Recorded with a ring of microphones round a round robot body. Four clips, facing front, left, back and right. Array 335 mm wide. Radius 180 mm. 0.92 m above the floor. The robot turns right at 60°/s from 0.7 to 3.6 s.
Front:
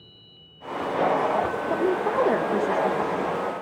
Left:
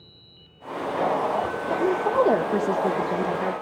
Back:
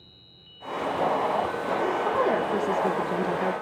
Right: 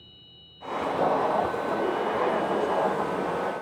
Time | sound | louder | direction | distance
1.7 | a woman speaking | left 8 dB, front 2 dB | 30° left | 1.4 m